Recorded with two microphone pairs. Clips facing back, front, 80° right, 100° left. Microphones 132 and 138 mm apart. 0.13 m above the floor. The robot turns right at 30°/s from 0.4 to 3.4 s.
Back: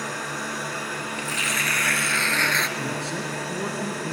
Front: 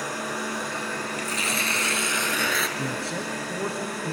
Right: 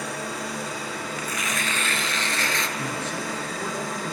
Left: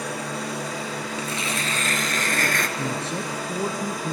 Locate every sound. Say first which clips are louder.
0.0 s an engine running: front 1 dB, left 2 dB; 85° left, 9.5 m; by 4.1 s 175° left, 9.5 m
1.2 s tearing paper: even, left 2 dB; 40° left, 1.1 m; by 2.7 s 85° left, 1.1 m
2.8 s a man speaking: back 1 dB, left 2 dB; 75° left, 1.4 m; by 4.1 s 95° left, 1.4 m